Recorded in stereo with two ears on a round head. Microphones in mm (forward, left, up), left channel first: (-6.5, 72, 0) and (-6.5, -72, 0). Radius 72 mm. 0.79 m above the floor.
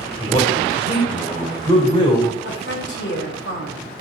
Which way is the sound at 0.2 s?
35° left (ahead or behind).